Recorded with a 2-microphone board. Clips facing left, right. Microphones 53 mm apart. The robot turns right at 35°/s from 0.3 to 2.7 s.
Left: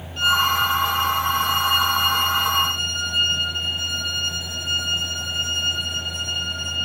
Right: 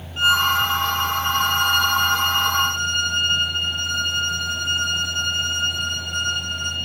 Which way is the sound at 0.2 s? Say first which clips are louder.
Right 1 dB; 155° right.